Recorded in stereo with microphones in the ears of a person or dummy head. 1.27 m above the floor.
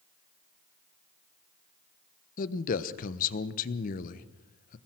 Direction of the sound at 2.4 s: 50° left (ahead or behind).